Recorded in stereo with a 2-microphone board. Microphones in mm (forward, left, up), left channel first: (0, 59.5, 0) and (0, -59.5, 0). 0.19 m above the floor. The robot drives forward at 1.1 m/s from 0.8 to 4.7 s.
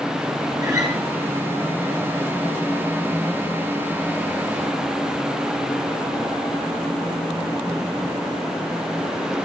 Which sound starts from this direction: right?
A guitar, at 0.6 s.